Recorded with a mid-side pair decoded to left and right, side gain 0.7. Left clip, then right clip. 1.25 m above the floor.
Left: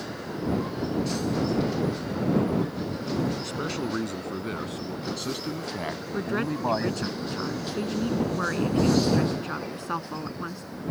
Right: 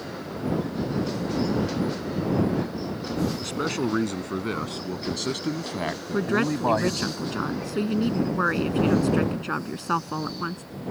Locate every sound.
3.4 s a man speaking: 25° right; by 7.1 s 15° right
6.1 s a woman speaking: 25° right